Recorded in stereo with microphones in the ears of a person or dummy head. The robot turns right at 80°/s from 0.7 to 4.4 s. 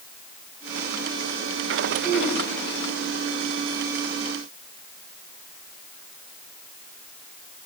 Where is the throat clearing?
60° right (ahead or behind), 3 m; by 2.4 s 35° right (ahead or behind), 3 m.